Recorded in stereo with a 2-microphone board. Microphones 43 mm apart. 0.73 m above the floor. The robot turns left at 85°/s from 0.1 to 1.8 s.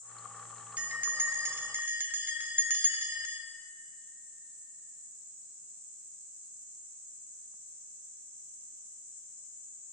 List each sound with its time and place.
0.8 s a bell: 35° right, 0.6 m; by 3.4 s 120° right, 0.6 m